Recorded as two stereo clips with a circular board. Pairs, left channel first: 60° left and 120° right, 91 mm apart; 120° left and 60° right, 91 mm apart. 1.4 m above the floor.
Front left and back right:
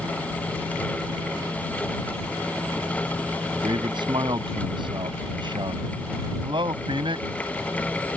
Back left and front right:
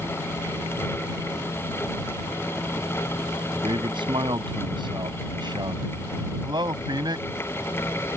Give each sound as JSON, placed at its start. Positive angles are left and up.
{"t": 3.6, "sound": "a man speaking", "azimuth_deg": -90}